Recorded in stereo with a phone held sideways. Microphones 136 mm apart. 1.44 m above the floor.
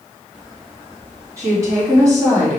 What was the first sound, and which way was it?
A woman speaking, 25° right (ahead or behind).